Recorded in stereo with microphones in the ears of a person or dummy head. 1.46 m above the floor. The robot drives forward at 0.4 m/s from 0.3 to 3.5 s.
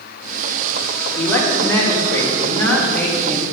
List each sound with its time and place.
1.1 s a man speaking: 20° left (ahead or behind), 2 m; by 3.4 s 10° left (ahead or behind), 3 m